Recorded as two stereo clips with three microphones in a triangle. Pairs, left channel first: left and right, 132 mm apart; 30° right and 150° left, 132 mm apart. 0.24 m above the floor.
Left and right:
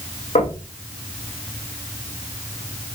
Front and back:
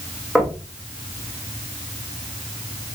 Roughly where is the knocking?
Ahead left.